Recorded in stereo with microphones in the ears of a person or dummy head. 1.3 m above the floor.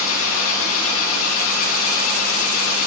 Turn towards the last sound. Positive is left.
turn(degrees=75)  # may be behind; listen again after turning